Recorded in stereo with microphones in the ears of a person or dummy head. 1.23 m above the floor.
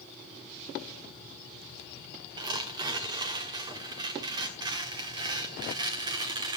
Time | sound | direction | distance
2.4 | tearing paper | 25° right (ahead or behind) | 1.4 m